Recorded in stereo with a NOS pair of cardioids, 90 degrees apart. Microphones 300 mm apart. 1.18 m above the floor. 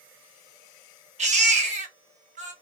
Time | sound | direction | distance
1.2 | a baby crying | 20° right | 1.1 m